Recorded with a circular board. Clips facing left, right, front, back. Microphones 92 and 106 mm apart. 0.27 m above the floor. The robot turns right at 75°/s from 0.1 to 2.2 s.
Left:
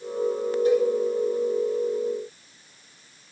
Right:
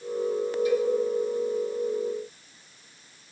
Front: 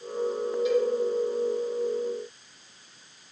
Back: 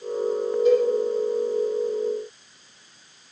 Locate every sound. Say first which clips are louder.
0.7 s a cowbell: left 5 dB, back 6 dB; 135° left, 8 m; by 0.9 s 150° left, 8 m